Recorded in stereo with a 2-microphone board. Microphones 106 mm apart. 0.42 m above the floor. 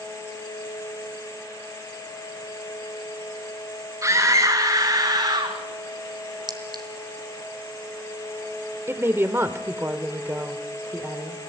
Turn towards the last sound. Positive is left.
turn(degrees=-25)  # may be behind; listen again after turning